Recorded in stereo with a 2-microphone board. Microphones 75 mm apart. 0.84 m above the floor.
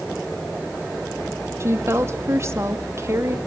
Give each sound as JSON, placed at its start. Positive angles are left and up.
{"t": 1.6, "sound": "a woman speaking", "side_deg": -40, "distance_m": 1.4}